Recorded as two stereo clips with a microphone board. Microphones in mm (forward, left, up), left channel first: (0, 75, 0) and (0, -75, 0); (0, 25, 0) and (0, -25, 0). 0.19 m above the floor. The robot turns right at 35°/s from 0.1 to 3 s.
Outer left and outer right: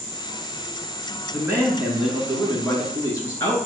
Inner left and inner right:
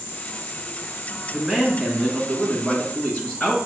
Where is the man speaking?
25° right, 1.7 m; by 3.6 s 30° left, 1.7 m.